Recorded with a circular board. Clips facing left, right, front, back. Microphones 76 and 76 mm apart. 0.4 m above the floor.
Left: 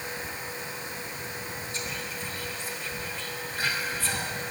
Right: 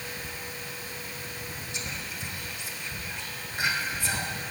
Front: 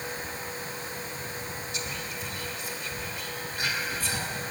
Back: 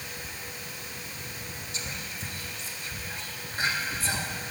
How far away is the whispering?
About 1.0 m.